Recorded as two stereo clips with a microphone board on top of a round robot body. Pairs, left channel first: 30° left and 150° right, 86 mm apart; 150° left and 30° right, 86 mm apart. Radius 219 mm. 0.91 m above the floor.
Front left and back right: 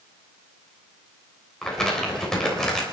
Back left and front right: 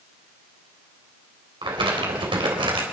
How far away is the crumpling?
About 3.5 m.